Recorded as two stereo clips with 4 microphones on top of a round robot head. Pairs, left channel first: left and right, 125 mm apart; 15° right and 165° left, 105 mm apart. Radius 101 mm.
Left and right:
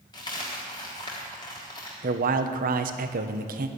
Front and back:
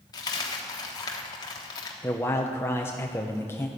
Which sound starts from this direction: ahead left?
A dropped coin, at 0.1 s.